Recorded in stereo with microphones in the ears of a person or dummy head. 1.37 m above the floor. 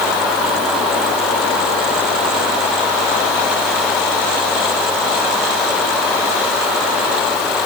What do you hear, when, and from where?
Only background noise.